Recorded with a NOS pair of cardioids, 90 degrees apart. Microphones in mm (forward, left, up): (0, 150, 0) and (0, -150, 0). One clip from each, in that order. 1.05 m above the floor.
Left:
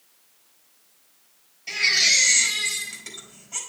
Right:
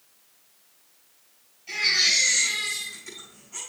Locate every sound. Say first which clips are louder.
1.7 s a baby crying: left 2 dB; 70° left, 4 m